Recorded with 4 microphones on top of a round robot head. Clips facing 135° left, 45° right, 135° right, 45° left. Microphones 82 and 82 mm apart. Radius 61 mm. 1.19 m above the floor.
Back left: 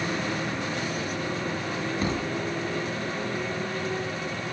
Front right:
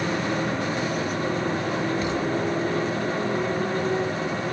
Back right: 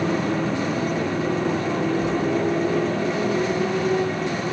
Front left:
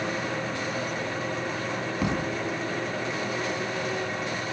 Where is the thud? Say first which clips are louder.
Front right 4 dB, back right 7 dB; 80° left.